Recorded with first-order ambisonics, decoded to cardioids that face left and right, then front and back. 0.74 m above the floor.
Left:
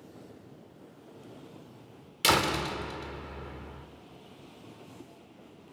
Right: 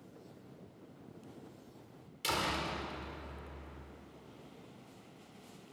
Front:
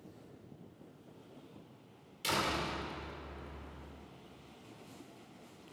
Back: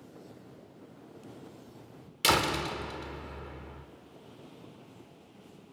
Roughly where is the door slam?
Behind left.